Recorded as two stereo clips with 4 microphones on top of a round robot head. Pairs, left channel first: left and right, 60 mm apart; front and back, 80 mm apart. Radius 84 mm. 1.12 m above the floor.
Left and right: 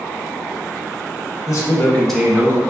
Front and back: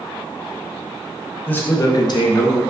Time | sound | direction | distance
1.5 | a man speaking | 70° left | 0.8 m